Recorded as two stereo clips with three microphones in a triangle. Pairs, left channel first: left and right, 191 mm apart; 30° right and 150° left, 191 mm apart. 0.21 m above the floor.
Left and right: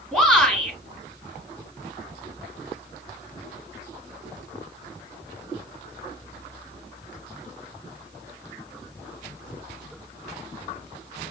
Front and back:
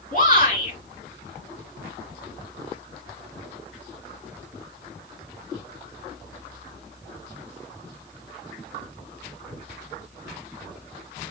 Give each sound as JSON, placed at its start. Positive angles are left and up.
{"t": 0.1, "sound": "a shout", "azimuth_deg": 5, "distance_m": 3.0}